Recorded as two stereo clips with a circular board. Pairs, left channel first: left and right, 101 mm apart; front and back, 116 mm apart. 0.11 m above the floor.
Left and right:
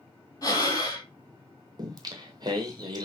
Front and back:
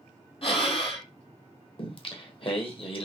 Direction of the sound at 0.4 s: 35° left.